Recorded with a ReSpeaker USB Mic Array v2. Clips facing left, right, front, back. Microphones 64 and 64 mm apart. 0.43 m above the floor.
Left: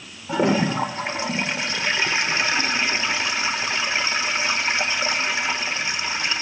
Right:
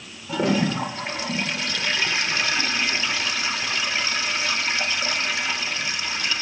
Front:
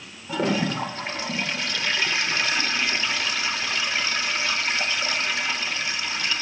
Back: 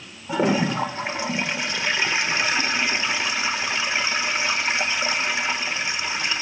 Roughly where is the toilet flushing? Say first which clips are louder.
Left 2 dB, back 3 dB; behind left.